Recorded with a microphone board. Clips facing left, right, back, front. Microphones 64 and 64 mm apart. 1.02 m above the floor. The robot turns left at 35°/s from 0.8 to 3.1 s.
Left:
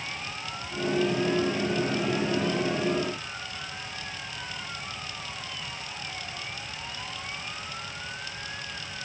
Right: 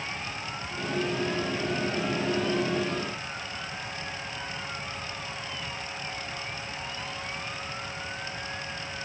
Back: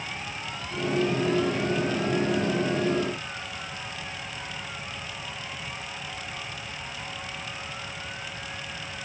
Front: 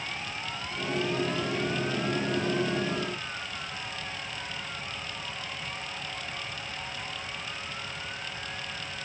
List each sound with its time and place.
Only background noise.